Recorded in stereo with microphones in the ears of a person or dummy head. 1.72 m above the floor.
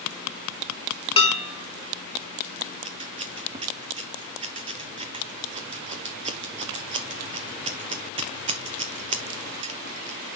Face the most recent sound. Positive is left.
turn(degrees=-30)  # may be behind; listen again after turning